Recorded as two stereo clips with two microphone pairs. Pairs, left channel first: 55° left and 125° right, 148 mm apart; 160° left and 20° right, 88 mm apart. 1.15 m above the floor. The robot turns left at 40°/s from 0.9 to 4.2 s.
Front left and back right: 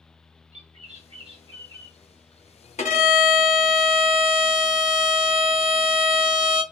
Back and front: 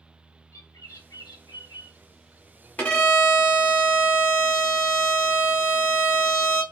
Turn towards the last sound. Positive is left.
turn(degrees=30)